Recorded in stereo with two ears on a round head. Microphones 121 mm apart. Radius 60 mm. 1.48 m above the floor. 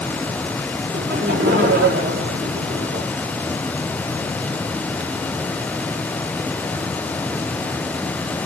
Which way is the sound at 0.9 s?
90° right.